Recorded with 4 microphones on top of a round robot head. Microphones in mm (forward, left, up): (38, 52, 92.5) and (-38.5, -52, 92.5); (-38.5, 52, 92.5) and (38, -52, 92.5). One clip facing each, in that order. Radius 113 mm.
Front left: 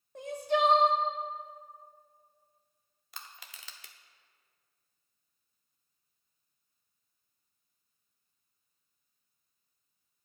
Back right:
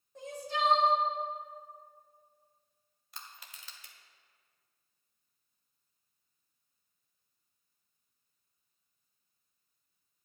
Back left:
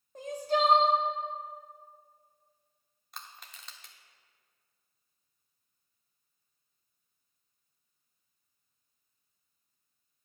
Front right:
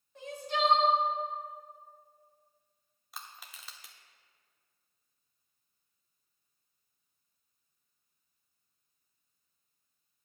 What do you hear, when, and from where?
0.1 s crying: 75° left, 1.4 m
3.1 s crushing: 30° left, 0.6 m